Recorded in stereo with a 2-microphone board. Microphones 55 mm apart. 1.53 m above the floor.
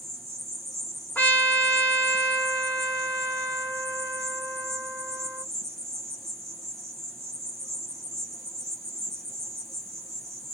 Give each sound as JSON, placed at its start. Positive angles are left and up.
{"t": 0.0, "sound": "an insect", "side_deg": 5, "distance_m": 2.0}
{"t": 1.1, "sound": "a trumpet", "side_deg": 30, "distance_m": 2.5}